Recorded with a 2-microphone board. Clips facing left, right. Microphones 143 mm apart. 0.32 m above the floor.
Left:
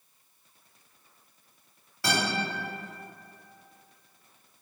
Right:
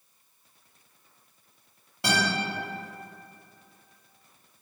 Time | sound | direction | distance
2.0 | a guitar | 20° right (ahead or behind) | 1.8 m